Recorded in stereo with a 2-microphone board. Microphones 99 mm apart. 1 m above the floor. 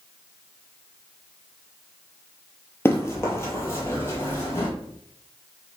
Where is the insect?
I don't hear an insect.